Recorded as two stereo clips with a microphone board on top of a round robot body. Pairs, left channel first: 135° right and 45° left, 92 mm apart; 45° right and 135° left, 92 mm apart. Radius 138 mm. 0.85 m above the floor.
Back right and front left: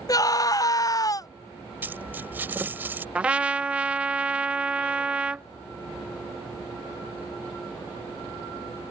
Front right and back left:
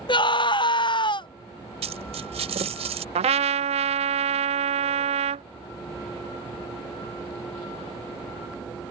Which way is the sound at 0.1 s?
80° right.